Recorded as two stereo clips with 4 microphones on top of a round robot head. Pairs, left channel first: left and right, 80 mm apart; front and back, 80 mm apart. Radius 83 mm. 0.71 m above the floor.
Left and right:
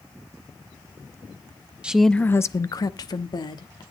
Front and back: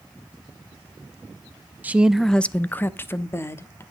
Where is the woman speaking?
145° right, 0.5 m; by 3.8 s 55° left, 1.6 m.